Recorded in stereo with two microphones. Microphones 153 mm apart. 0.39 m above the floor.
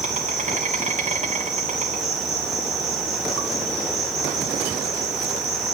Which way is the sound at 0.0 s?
45° right (ahead or behind).